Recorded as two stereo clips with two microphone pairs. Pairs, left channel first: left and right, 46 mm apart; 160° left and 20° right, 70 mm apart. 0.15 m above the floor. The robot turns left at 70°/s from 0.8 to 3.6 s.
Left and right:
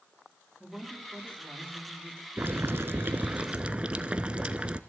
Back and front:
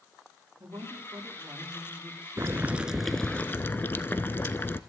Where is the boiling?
65° right, 0.7 m; by 4.8 s 150° right, 0.7 m.